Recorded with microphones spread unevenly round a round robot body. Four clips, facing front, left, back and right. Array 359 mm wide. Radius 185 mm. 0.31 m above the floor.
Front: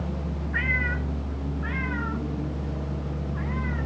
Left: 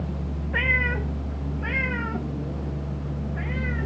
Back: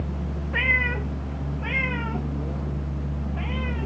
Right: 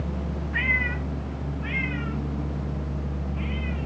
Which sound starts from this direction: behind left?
A cat meowing, at 0.5 s.